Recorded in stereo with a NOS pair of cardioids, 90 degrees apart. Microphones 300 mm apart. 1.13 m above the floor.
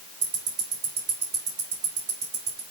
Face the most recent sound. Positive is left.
turn(degrees=-50)